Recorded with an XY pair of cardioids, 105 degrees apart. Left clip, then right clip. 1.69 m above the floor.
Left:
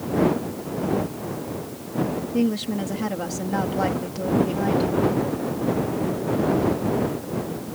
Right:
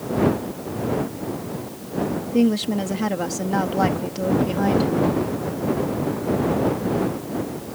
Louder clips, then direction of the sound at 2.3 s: Right 5 dB; 20° right.